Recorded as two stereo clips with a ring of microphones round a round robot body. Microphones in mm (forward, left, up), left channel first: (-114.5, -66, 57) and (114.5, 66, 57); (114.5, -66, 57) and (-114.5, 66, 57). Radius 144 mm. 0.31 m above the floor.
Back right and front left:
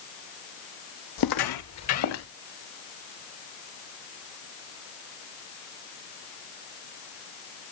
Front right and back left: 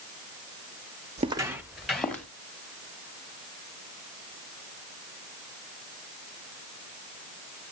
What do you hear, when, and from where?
1.2 s footsteps: 145° right, 0.6 m; by 2.3 s 115° right, 2 m